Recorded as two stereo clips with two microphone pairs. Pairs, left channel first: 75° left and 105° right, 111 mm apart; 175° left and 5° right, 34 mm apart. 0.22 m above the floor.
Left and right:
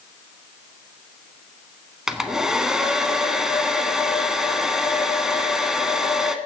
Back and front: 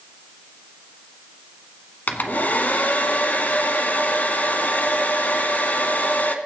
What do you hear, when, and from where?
2.1 s a hair dryer: 170° left, 1.3 m